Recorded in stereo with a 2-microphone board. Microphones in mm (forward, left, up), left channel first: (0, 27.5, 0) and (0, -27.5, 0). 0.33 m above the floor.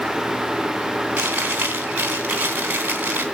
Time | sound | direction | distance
1.2 | chewing | 30° right (ahead or behind) | 3.5 m